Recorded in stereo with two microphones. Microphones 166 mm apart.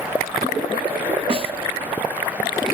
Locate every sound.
1.3 s a snare drum: 35° right (ahead or behind), 0.6 m